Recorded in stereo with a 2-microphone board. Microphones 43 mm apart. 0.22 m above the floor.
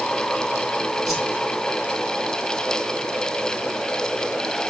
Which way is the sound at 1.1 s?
Centre (ahead or behind).